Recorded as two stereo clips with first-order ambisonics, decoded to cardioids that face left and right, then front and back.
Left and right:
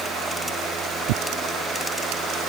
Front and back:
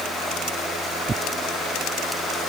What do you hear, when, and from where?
1.1 s tearing paper: 105° right